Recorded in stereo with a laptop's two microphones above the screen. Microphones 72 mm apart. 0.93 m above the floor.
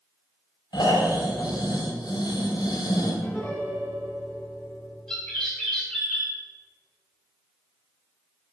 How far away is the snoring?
About 3 m.